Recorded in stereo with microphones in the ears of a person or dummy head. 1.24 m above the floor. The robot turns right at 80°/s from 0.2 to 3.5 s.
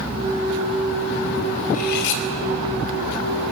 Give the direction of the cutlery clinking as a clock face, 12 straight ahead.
11 o'clock.